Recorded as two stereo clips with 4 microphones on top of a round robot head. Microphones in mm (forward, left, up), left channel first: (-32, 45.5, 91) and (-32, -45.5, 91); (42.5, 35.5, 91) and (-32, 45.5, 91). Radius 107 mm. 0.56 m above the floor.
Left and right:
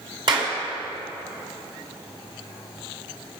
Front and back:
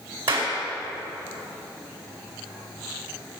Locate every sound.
0.3 s a clap: 125° right, 4 m